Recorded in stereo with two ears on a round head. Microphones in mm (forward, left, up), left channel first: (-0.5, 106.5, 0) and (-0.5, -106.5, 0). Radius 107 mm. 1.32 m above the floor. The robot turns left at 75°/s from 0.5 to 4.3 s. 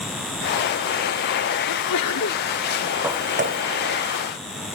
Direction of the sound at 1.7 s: 100° left.